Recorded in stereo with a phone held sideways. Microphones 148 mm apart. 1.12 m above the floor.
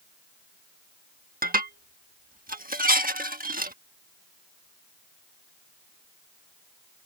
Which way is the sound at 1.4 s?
75° right (ahead or behind).